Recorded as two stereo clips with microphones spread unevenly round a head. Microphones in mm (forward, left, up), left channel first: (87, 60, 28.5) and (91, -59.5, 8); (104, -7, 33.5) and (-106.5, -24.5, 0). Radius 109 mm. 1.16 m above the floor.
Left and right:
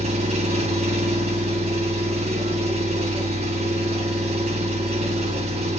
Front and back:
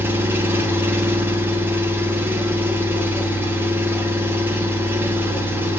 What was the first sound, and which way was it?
An engine running, 100° right.